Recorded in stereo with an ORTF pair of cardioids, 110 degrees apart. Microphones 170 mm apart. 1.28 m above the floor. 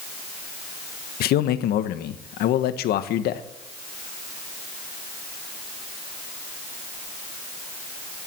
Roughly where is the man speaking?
Left.